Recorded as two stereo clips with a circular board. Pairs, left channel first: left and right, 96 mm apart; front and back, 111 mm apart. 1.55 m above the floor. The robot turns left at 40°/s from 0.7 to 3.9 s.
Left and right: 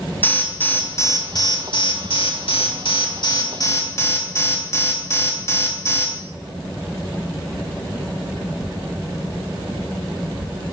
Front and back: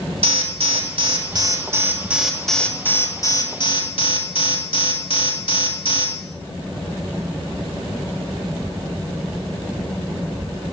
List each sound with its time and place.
0.2 s an alarm: 160° left, 3.5 m; by 6.1 s 30° left, 3.5 m